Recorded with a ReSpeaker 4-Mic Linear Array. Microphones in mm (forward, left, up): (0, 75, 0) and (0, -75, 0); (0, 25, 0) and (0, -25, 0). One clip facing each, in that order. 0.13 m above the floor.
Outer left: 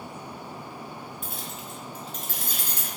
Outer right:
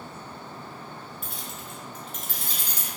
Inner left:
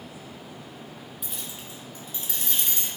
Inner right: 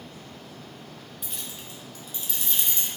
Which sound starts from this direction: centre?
Keys jangling, at 1.2 s.